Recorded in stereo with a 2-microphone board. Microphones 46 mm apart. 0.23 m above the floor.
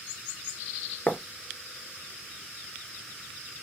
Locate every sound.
1.1 s writing: 50° left (ahead or behind), 0.5 m